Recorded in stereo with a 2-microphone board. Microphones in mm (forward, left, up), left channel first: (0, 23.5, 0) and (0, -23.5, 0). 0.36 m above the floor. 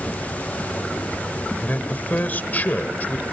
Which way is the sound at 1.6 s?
35° left (ahead or behind).